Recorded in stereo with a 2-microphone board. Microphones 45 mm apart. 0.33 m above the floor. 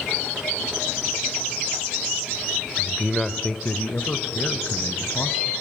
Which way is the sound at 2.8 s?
20° right (ahead or behind).